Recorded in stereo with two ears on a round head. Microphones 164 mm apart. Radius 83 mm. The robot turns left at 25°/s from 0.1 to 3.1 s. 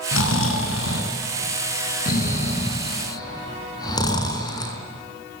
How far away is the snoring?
About 4.5 m.